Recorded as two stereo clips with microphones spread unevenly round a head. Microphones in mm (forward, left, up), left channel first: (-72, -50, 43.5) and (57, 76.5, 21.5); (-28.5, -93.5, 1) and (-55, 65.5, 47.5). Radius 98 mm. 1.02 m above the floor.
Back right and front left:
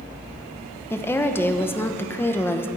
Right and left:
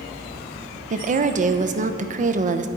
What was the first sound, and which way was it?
A woman speaking, 145° left.